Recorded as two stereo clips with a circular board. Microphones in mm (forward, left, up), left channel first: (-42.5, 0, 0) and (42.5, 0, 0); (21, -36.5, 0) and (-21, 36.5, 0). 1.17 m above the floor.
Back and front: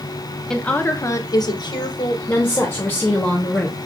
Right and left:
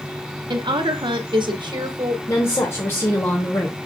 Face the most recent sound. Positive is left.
turn(degrees=-105)